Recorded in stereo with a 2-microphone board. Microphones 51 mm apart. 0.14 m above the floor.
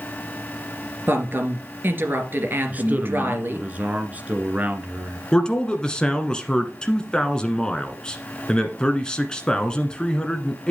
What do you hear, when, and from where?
1.1 s a woman speaking: 45° right (ahead or behind), 2.5 m
2.7 s a man speaking: 35° right (ahead or behind), 1.6 m
5.3 s a man speaking: 15° left (ahead or behind), 1.4 m